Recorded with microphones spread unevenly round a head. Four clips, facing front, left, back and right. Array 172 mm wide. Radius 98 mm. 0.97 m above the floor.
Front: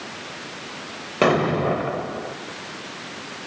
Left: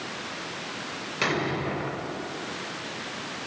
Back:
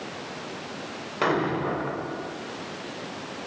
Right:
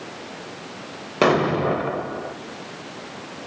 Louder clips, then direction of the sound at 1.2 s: Right 10 dB, front 6 dB; 60° right.